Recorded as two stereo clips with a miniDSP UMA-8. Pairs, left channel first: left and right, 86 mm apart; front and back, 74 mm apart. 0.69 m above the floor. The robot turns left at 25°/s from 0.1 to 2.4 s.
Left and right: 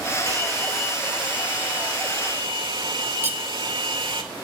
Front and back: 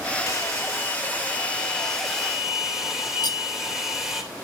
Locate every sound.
0.3 s a hair dryer: 40° right, 3 m; by 4.2 s 95° right, 3 m
3.2 s cutlery clinking: 25° right, 1.3 m